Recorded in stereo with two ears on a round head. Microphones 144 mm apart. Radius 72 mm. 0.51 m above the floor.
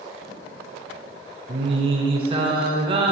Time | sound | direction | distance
1.5 | singing | 35° right (ahead or behind) | 3 m